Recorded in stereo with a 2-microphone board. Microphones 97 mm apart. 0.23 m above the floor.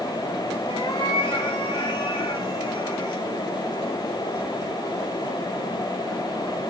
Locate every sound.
0.7 s a cat meowing: 50° left (ahead or behind), 2.5 m